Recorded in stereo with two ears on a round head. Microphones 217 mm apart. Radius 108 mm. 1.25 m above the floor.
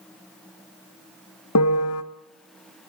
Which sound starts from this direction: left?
A piano, at 1.6 s.